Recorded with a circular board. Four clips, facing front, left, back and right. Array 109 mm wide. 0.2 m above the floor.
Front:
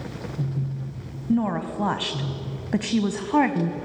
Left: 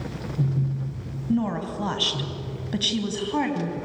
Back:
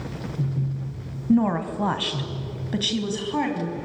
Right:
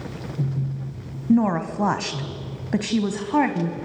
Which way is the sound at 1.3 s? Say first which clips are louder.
Right 6 dB, back 3 dB; 110° right.